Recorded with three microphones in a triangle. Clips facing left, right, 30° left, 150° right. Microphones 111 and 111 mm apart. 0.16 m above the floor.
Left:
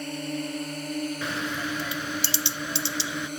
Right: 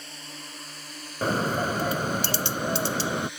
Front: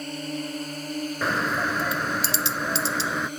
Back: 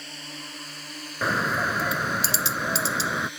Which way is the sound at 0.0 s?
65° left.